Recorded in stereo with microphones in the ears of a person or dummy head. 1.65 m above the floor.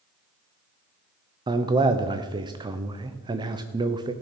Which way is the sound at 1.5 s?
20° right (ahead or behind).